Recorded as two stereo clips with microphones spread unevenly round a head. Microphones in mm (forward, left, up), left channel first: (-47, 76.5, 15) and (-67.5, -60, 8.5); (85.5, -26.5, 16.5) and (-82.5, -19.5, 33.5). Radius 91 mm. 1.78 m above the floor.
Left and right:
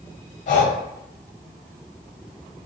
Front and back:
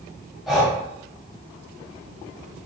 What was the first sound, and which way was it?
Breathing, 95° left.